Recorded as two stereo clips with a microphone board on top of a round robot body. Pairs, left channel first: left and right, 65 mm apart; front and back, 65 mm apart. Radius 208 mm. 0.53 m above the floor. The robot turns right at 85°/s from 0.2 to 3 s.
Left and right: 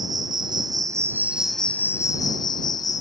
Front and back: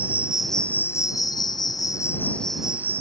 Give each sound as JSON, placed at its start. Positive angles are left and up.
{"t": 0.0, "sound": "an insect", "azimuth_deg": -110}